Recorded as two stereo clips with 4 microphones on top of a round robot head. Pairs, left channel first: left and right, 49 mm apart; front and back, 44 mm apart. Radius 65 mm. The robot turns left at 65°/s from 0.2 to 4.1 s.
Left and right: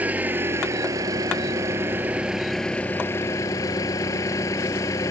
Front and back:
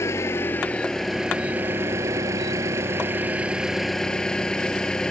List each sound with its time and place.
0.0 s an engine running: 30° right; by 5.1 s 75° left